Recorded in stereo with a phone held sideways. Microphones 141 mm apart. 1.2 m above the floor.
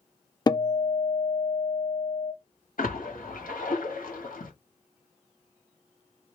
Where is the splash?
80° left, 2.0 m.